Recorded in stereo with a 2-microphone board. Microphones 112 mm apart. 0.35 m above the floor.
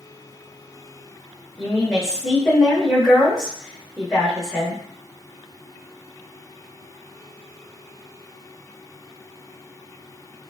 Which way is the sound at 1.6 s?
Centre (ahead or behind).